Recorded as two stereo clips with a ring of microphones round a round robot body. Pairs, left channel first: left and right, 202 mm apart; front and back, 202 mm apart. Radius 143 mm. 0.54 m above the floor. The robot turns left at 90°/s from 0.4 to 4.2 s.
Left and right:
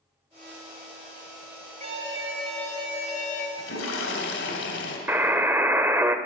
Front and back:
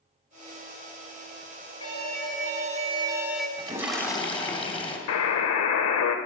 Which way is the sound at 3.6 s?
120° left.